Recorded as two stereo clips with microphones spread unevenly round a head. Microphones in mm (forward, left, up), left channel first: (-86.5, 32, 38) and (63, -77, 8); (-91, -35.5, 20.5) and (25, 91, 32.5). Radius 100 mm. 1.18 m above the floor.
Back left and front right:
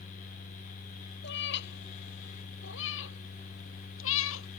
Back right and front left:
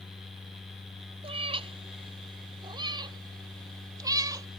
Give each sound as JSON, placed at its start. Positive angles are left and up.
{"t": 1.2, "sound": "a cat meowing", "azimuth_deg": 105}